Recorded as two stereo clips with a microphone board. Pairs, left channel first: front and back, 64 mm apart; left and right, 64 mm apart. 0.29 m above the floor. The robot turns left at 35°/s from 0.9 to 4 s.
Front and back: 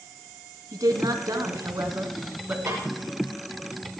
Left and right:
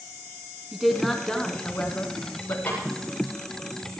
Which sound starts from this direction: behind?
A woman speaking, at 0.7 s.